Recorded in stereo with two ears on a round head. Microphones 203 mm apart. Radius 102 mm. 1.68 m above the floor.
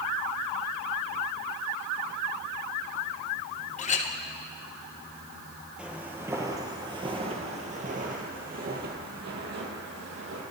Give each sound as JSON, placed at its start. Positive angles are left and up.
{"t": 3.8, "sound": "a clink", "side_deg": 30, "distance_m": 0.9}
{"t": 5.8, "sound": "footsteps", "side_deg": -5, "distance_m": 1.8}